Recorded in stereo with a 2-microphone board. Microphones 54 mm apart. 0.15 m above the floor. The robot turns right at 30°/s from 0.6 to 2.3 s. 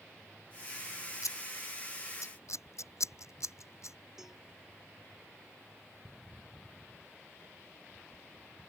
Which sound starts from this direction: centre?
A cowbell, at 4.2 s.